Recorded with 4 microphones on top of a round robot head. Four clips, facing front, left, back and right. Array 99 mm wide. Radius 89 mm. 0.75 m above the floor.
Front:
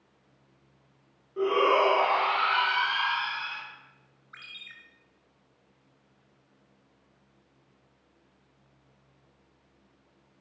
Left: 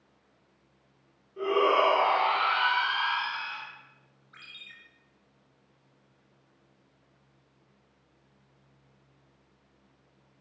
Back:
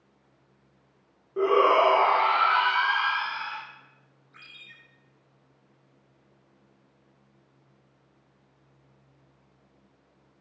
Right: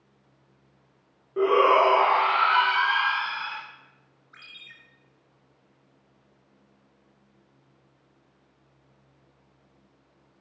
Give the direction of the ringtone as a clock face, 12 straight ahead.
12 o'clock.